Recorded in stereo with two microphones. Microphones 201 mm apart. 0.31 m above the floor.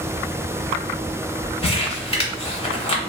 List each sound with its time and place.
1.6 s crumpling: 25° left (ahead or behind), 0.8 m